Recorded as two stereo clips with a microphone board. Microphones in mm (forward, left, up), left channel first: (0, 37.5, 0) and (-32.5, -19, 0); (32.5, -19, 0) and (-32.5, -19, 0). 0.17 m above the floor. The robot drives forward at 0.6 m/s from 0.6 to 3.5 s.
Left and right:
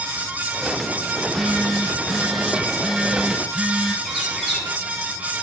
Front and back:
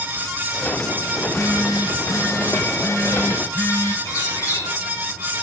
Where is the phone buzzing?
30° right, 3.5 m; by 4.0 s 45° right, 2.5 m.